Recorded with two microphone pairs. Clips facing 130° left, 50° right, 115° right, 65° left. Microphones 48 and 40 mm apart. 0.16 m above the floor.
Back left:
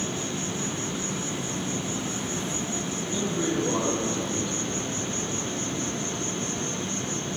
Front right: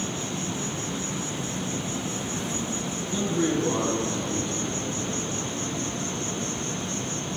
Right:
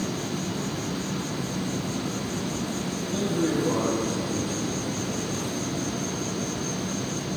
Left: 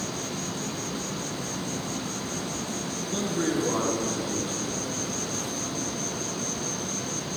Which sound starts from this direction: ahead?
A man speaking, at 3.1 s.